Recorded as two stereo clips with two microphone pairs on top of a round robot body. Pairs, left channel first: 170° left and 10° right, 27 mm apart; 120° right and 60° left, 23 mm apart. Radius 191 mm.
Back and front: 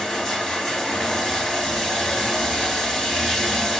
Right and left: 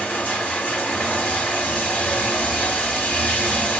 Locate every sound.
0.0 s running water: 115° right, 5.5 m